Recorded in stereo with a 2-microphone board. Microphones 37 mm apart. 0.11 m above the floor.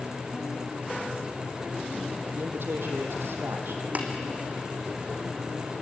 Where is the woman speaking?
70° right (ahead or behind), 3.5 m.